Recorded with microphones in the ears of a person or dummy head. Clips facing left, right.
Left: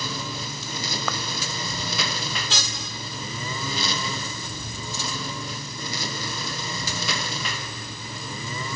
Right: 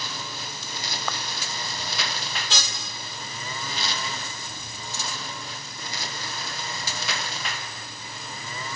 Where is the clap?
65° left (ahead or behind).